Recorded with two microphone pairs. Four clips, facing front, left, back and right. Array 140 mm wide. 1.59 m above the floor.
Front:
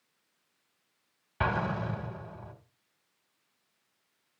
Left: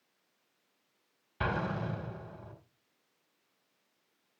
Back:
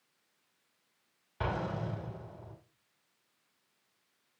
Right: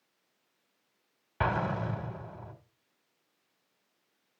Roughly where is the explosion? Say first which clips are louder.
Right 3 dB, front 5 dB; right.